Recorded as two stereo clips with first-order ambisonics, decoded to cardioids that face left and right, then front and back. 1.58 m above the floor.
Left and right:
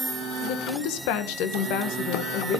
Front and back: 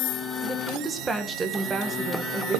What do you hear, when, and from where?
0.4 s a woman speaking: 110° left, 1.8 m